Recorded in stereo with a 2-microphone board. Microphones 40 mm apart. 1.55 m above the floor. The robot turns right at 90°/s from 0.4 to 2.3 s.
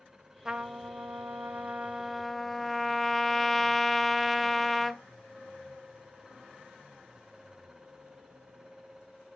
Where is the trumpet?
160° right, 0.7 m; by 5.0 s 5° left, 0.7 m.